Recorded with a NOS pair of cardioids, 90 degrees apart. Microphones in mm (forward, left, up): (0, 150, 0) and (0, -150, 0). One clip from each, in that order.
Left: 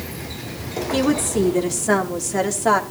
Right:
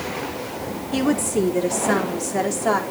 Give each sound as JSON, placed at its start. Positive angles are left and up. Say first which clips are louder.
{"t": 0.9, "sound": "a woman speaking", "louder": "left 1 dB", "azimuth_deg": 5, "distance_m": 4.0}